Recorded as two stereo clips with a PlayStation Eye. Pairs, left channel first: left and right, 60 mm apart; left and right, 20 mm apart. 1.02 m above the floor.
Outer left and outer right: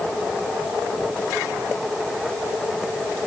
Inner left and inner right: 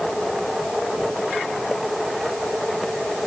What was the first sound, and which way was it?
Only background noise.